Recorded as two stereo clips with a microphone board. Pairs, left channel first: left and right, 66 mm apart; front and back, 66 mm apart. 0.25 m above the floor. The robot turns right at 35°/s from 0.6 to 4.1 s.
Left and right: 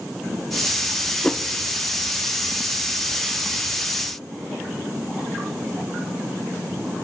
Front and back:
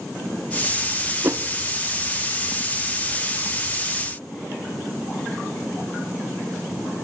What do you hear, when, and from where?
1.2 s a whoosh: 160° left, 0.5 m; by 1.4 s 165° left, 0.5 m